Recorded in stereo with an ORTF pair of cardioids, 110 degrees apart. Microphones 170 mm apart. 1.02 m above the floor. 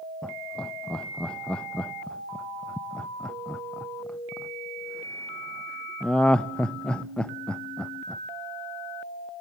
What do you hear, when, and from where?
0.2 s laughter: 5° left, 0.5 m